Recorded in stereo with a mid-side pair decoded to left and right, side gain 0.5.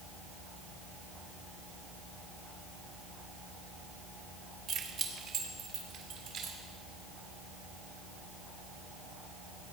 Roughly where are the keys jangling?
Right.